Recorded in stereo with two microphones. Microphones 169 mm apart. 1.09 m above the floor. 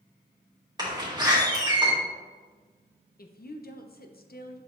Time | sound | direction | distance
0.8 | a door slam | 25° right (ahead or behind) | 2 m
3.2 | a woman speaking | 60° left (ahead or behind) | 0.6 m